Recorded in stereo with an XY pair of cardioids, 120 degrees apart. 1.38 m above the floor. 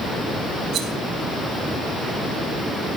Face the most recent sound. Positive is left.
turn(degrees=-70)